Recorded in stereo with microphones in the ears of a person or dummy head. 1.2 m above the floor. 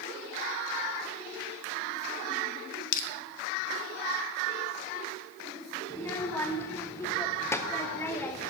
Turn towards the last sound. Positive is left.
turn(degrees=5)  # may be behind; listen again after turning